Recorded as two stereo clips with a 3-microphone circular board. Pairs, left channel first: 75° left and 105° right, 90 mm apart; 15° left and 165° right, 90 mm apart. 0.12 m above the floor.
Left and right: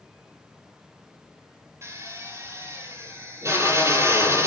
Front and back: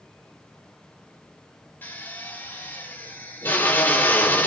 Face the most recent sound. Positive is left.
turn(degrees=-50)